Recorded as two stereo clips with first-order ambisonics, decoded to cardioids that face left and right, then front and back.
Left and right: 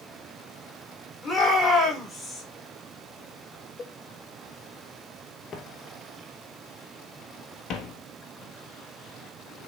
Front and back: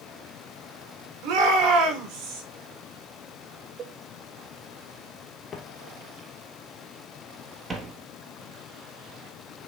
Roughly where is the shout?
Behind.